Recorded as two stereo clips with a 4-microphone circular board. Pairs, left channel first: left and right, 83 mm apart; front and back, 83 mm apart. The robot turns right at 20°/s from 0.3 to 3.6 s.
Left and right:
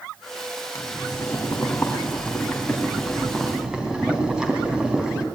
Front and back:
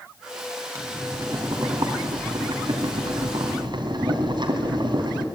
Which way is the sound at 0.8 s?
135° left.